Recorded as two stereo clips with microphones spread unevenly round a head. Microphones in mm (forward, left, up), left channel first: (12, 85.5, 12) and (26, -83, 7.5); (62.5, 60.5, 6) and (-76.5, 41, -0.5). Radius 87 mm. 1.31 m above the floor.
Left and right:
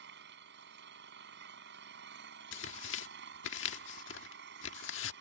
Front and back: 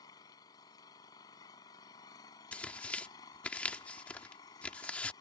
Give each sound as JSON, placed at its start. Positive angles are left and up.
{"t": 0.0, "sound": "an engine running", "azimuth_deg": -65}
{"t": 2.5, "sound": "tearing paper", "azimuth_deg": 90}